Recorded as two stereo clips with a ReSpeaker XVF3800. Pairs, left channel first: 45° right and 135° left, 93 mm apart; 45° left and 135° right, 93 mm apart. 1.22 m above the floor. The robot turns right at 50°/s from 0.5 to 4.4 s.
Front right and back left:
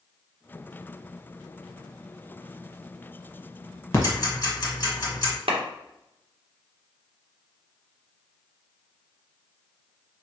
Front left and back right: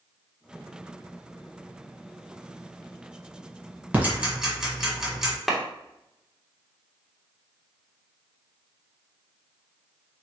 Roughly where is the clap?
Behind left.